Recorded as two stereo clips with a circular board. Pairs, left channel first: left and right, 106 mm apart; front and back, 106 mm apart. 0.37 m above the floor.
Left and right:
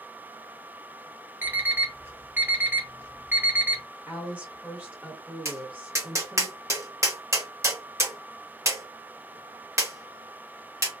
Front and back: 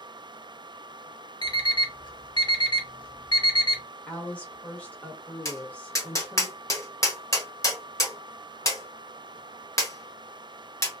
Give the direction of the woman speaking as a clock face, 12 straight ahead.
1 o'clock.